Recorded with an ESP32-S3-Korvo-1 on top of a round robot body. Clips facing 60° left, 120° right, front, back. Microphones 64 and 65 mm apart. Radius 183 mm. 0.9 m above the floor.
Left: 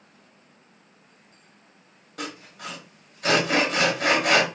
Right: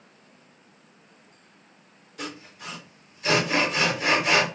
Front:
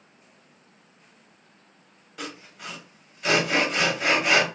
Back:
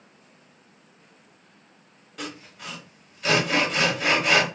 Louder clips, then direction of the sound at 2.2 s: Left 2 dB, back 1 dB; 85° left.